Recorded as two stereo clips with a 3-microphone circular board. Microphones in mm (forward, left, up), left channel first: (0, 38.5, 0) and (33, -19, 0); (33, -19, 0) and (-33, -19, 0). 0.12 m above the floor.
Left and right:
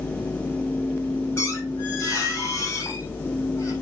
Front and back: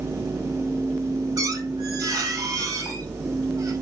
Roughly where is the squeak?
Behind.